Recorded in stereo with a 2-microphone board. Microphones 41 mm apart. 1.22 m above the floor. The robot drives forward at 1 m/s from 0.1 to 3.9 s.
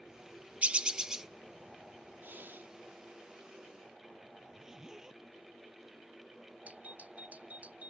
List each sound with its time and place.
0.6 s a bird: 35° right (ahead or behind); by 1.3 s 15° right (ahead or behind)
2.2 s breathing: 55° right (ahead or behind); by 2.7 s 65° right (ahead or behind)
4.4 s a zipper: 10° right (ahead or behind)
6.7 s a doorbell: 35° right (ahead or behind)